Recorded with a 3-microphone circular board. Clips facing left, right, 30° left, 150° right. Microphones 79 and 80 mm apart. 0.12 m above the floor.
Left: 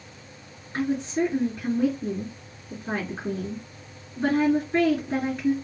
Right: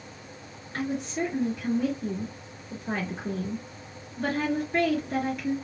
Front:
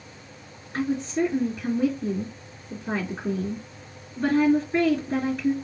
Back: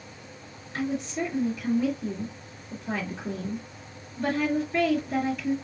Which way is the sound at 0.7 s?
45° left.